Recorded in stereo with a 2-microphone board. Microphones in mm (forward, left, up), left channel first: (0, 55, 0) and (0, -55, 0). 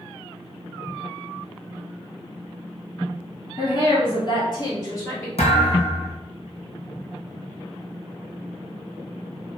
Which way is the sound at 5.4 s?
70° left (ahead or behind).